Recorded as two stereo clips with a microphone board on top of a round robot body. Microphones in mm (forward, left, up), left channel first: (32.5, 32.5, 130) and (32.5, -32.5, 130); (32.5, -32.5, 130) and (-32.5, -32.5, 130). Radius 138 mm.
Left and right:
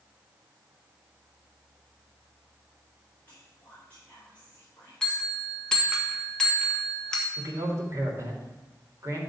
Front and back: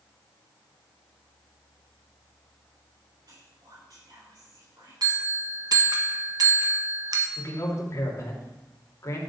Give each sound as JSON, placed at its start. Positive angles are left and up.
{"t": 3.3, "sound": "whispering", "azimuth_deg": 160, "distance_m": 3.5}
{"t": 5.0, "sound": "a bell", "azimuth_deg": 170, "distance_m": 1.7}
{"t": 7.4, "sound": "a man speaking", "azimuth_deg": -45, "distance_m": 3.0}